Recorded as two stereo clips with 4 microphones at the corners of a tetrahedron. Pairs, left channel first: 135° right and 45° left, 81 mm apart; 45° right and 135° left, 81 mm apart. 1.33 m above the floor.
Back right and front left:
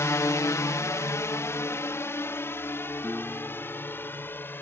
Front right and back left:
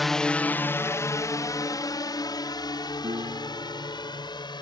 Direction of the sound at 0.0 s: 135° right.